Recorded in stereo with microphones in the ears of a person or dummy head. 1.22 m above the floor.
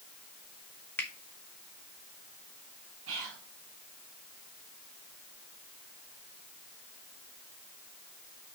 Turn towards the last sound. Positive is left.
turn(degrees=-65)  # may be behind; listen again after turning